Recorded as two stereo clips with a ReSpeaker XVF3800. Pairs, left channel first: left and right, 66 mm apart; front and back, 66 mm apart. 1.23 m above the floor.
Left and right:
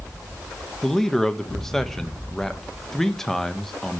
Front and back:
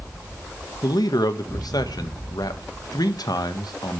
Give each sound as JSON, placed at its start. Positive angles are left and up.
{"t": 0.8, "sound": "a man speaking", "azimuth_deg": 5, "distance_m": 1.4}